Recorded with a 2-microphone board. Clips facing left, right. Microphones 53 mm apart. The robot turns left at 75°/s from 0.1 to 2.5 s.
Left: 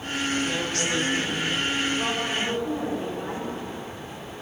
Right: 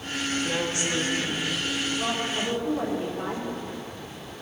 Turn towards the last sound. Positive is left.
turn(degrees=-15)